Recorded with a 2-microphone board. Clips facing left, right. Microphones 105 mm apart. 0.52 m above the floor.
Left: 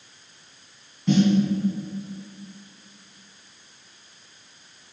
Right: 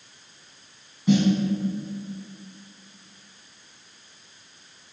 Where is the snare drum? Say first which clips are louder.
Left 1 dB; 10° right (ahead or behind), 2.5 m.